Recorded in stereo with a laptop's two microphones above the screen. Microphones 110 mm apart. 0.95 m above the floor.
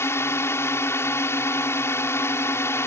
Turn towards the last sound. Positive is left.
turn(degrees=25)  # may be behind; listen again after turning